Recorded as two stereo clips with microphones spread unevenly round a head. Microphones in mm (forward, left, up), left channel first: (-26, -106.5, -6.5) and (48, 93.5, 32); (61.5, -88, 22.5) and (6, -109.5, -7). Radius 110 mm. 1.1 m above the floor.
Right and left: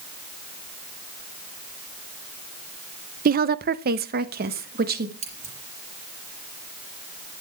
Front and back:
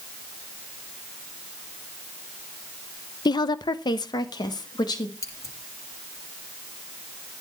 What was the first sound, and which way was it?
A woman speaking, 20° left.